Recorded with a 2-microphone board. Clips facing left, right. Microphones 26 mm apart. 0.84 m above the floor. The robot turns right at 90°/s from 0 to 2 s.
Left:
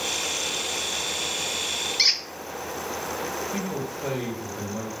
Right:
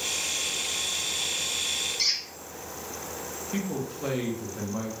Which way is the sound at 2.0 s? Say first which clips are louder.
Left 7 dB; 50° left (ahead or behind).